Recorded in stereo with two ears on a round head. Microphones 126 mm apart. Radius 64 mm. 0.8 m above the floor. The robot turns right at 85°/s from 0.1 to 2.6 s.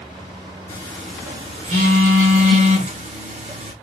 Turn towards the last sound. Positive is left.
turn(degrees=-50)  # may be behind; listen again after turning